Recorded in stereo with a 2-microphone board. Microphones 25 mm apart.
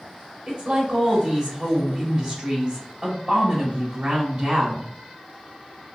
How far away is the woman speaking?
About 1.1 m.